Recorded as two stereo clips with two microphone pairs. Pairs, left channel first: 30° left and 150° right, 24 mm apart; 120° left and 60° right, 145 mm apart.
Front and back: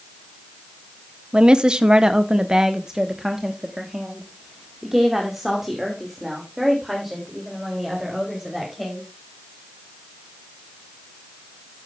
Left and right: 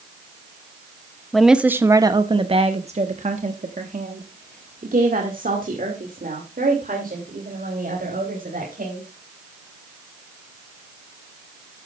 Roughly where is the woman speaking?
Behind right.